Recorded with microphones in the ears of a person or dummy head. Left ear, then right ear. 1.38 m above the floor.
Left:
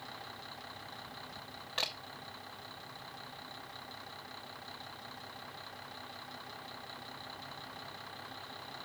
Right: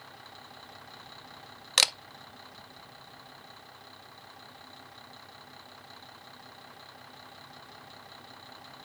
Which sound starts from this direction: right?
A camera shutter, at 1.8 s.